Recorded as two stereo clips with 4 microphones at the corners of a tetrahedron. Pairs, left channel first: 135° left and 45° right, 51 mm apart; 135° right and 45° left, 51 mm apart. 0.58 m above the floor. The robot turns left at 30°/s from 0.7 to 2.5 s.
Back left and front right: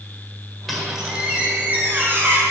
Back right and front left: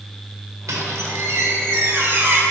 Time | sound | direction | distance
0.7 | a squeak | 45° left | 1.6 m